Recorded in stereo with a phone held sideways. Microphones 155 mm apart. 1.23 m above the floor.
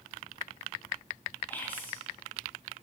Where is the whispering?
10° left (ahead or behind), 1.9 m.